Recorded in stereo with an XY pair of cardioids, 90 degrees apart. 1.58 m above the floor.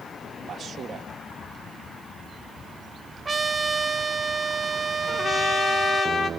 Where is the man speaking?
55° right, 2 m.